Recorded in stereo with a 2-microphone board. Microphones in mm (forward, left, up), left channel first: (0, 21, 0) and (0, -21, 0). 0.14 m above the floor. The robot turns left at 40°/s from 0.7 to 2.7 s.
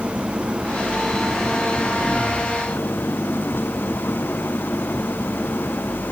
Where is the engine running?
155° right; by 6.1 s 125° left.